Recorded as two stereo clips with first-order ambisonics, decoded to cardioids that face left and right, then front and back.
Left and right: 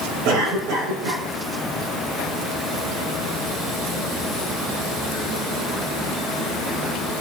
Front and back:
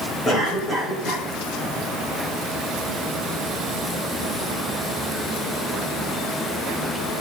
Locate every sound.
0.2 s a cough: 80° right, 5 m